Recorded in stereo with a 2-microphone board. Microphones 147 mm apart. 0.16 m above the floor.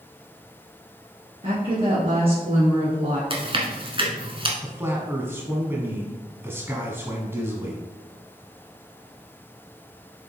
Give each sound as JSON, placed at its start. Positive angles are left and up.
{"t": 1.4, "sound": "a woman speaking", "side_deg": -40, "distance_m": 2.5}
{"t": 3.3, "sound": "chewing", "side_deg": -35, "distance_m": 1.3}
{"t": 4.6, "sound": "a man speaking", "side_deg": -15, "distance_m": 1.0}